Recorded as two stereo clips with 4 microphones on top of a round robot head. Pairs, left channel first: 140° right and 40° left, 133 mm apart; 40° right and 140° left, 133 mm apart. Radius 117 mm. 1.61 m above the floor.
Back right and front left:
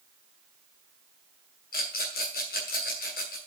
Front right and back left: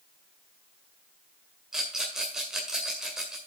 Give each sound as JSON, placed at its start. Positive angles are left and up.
{"t": 1.7, "sound": "a rattle", "azimuth_deg": -135, "distance_m": 1.9}